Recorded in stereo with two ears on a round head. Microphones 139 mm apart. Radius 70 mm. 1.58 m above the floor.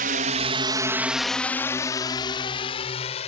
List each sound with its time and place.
0.0 s a drone: 60° right (ahead or behind); by 3.3 s 40° left (ahead or behind)